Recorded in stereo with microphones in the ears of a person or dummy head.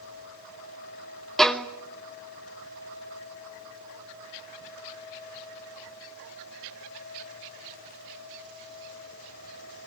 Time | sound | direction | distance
1.4 | a violin | 5° left (ahead or behind) | 0.7 m